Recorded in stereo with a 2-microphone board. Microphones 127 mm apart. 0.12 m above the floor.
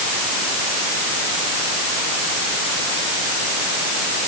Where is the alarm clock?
I don't hear an alarm clock.